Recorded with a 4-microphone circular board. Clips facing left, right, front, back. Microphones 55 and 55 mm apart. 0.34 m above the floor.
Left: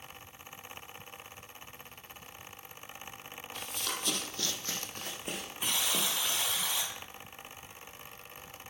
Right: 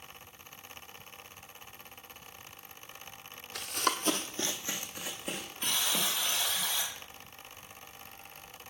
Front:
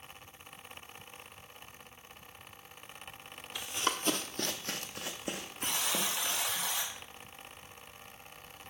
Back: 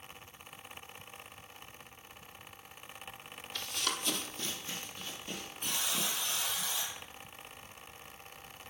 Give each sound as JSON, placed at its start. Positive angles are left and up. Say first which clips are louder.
{"t": 3.5, "sound": "running footsteps", "louder": "right 7 dB, front 3 dB", "azimuth_deg": -75, "distance_m": 0.7}
{"t": 5.6, "sound": "a buzzer", "louder": "even, front 2 dB", "azimuth_deg": 15, "distance_m": 2.5}